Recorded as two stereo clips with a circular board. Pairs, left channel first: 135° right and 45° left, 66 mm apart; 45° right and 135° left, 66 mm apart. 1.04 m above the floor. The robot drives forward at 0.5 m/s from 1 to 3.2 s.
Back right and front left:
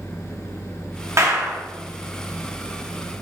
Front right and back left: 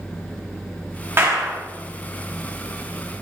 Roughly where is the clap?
Left.